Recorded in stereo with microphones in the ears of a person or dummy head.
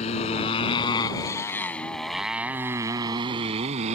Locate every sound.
0.0 s a motorcycle: 40° left (ahead or behind); by 4.0 s 40° right (ahead or behind)